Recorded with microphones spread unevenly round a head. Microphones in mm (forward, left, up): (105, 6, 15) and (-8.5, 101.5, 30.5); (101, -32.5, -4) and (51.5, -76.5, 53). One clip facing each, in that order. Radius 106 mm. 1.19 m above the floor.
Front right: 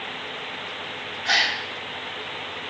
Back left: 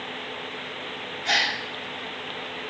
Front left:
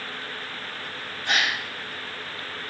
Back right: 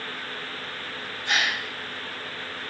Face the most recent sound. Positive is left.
turn(degrees=75)